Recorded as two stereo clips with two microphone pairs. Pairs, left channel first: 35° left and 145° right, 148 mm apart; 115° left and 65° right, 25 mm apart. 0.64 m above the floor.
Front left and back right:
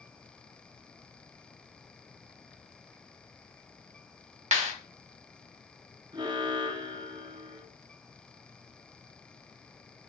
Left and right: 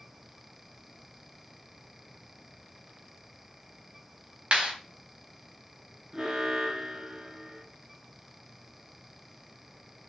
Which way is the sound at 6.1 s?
105° right.